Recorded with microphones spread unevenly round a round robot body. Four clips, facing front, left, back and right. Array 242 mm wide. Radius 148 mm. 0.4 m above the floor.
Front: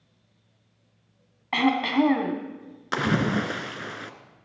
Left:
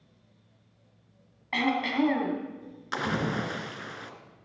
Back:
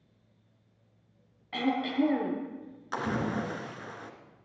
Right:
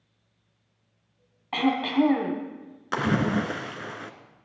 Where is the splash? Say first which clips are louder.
Right 5 dB, front 7 dB; 30° right, 1.6 m.